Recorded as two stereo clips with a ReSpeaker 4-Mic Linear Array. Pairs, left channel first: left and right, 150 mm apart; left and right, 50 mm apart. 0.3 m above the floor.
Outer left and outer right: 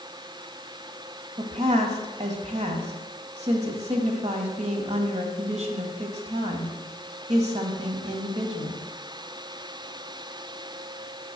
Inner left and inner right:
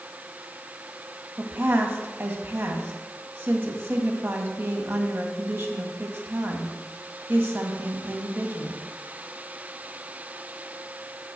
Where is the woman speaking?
50° right (ahead or behind), 1.8 m.